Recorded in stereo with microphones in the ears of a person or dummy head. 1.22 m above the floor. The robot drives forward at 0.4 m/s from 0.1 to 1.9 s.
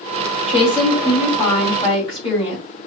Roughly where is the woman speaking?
Left.